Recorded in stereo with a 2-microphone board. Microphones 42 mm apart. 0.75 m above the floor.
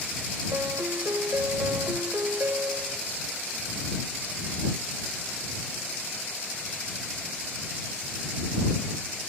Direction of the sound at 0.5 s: 80° right.